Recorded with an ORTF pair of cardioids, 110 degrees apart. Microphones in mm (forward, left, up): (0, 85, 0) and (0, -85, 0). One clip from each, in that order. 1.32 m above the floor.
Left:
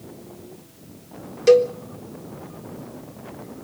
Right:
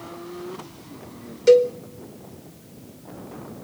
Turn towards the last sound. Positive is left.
turn(degrees=15)